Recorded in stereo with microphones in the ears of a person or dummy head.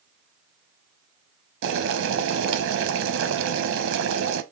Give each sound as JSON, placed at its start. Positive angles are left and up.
{"t": 1.6, "sound": "boiling", "side_deg": -75, "distance_m": 0.6}